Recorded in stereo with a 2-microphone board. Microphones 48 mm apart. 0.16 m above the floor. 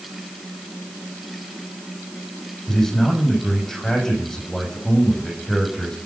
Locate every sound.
2.7 s a man speaking: 10° left (ahead or behind), 8 m